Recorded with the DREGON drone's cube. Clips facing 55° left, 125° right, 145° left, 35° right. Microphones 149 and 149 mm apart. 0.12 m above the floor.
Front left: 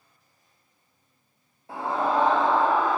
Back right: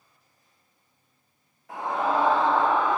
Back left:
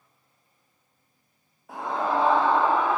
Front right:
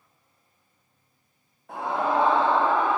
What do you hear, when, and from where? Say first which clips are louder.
1.7 s a scream: front left 1 dB, front right 1 dB; 60° left, 1.5 m; by 3.0 s 15° left, 2.5 m